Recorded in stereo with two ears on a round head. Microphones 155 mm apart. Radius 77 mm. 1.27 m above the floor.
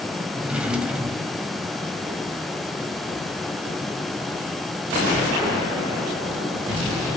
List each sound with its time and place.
0.4 s a drawer: 5° right (ahead or behind), 1.7 m